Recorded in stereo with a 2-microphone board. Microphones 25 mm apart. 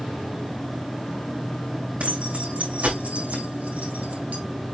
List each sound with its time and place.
2.0 s keys jangling: 60° right (ahead or behind), 6 m; by 4.4 s 75° right (ahead or behind), 3 m